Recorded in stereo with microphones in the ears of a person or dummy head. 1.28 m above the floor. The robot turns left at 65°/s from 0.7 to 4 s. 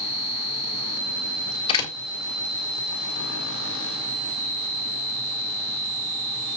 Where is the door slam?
35° left (ahead or behind), 2 m; by 1.9 s 15° left (ahead or behind), 2 m.